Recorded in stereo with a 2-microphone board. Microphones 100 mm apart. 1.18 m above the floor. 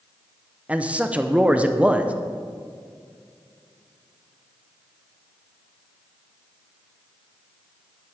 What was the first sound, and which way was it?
A man speaking, 15° right (ahead or behind).